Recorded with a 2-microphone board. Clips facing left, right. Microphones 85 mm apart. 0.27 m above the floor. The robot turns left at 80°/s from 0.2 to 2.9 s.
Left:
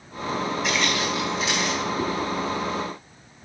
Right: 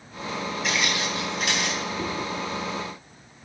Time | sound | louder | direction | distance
0.6 | footsteps | even | 5° left (ahead or behind) | 7 m
2.0 | a whoosh | left 4 dB | 20° left (ahead or behind) | 1.4 m